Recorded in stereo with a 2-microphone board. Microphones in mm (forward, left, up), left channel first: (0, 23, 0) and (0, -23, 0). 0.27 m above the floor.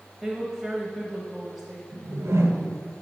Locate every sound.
0.2 s a woman speaking: 10° right (ahead or behind), 0.9 m
1.9 s a whoosh: 75° right (ahead or behind), 0.9 m